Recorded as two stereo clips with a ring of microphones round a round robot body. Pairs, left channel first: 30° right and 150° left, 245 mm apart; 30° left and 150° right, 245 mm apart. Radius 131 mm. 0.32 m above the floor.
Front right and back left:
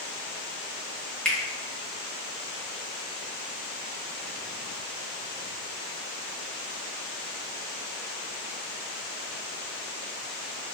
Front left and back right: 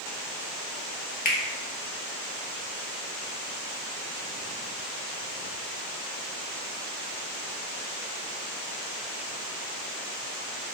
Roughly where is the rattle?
I don't hear a rattle.